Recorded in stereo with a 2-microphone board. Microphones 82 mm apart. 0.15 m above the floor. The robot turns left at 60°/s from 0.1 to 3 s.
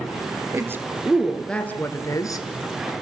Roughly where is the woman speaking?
Right.